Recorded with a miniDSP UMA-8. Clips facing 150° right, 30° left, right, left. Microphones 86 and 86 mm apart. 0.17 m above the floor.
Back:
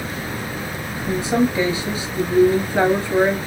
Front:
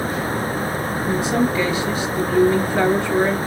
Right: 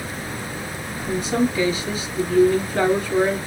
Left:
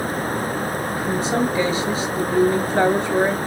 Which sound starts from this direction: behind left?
A woman speaking, at 1.1 s.